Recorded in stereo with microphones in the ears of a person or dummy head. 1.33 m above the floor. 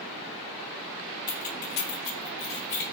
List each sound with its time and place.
1.3 s keys jangling: 30° left (ahead or behind), 0.7 m; by 2.8 s 60° left (ahead or behind), 2.5 m